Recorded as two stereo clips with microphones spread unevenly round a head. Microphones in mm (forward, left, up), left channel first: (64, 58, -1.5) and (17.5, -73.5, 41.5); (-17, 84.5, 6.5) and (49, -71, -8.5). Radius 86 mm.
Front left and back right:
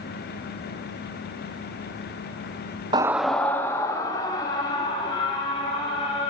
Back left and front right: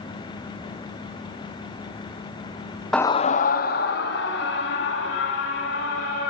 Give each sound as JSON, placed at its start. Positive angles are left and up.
{"t": 2.9, "sound": "a scream", "azimuth_deg": -160, "distance_m": 0.5}